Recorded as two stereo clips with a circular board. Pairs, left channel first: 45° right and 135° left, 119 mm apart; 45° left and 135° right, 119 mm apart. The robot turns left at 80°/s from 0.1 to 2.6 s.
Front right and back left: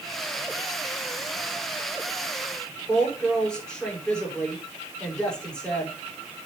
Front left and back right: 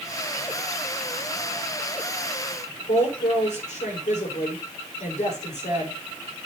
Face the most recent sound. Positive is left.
turn(degrees=40)